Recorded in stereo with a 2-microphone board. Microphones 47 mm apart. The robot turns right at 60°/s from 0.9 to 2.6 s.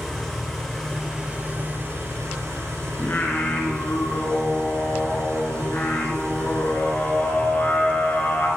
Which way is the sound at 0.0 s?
Straight behind.